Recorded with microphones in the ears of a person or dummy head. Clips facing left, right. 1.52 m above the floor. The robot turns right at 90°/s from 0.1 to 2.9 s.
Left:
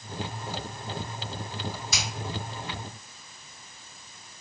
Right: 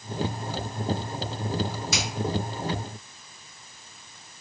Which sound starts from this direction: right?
A finger snap, at 1.9 s.